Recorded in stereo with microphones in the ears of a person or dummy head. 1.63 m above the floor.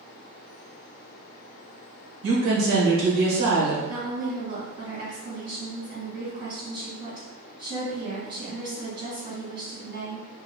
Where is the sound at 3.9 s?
55° right (ahead or behind), 1.9 m.